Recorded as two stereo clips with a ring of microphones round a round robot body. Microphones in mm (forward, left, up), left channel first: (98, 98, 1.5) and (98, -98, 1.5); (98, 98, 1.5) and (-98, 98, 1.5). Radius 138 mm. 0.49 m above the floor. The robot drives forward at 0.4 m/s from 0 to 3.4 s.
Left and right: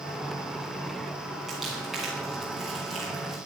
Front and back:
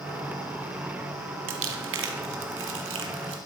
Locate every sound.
1.5 s crumpling: straight behind, 1.9 m